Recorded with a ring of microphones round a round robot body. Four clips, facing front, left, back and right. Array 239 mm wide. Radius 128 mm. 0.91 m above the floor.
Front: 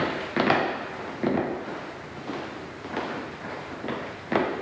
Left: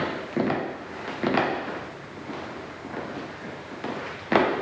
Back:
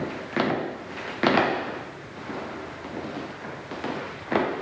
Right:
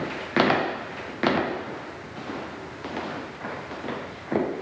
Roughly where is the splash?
No splash in this recording.